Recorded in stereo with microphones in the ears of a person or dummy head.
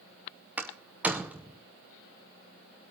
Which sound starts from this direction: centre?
A door slam, at 0.6 s.